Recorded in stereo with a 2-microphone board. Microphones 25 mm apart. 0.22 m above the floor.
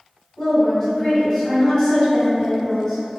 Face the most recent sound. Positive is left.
turn(degrees=30)  # may be behind; listen again after turning